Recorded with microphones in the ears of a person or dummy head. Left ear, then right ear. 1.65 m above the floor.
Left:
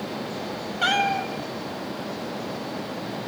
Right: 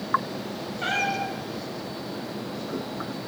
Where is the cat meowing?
55° left (ahead or behind), 3 m.